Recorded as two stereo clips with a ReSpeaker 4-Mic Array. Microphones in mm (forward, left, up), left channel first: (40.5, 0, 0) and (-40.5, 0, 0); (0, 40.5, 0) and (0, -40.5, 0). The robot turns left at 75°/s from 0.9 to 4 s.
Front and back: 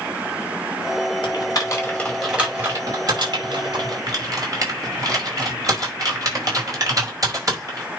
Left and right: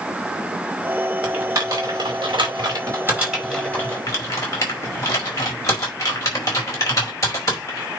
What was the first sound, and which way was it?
Typing on a keyboard, 15° right.